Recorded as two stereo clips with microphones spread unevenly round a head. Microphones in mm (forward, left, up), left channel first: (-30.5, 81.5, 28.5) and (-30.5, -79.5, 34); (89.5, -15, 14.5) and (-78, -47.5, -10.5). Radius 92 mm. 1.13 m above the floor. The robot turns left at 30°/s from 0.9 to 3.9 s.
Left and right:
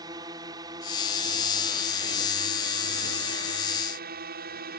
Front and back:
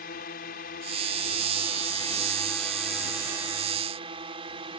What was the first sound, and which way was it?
A drone, 20° right.